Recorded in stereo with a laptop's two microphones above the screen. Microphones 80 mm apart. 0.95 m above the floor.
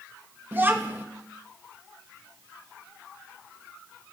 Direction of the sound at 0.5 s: 25° right (ahead or behind).